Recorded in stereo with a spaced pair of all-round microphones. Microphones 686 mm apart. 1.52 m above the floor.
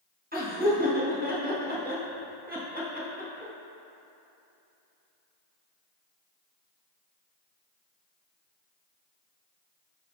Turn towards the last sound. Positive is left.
turn(degrees=-15)  # may be behind; listen again after turning